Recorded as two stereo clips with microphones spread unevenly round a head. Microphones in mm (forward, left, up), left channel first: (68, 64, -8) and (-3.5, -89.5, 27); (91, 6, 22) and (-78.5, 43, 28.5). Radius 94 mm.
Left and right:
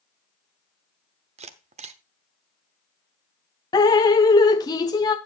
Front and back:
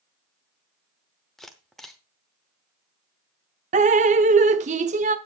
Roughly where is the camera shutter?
Right.